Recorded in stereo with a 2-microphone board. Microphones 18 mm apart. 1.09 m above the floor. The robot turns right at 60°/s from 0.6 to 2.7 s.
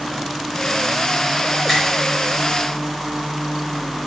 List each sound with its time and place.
1.7 s a finger snap: 5° right (ahead or behind), 4 m; by 1.8 s 5° left (ahead or behind), 4 m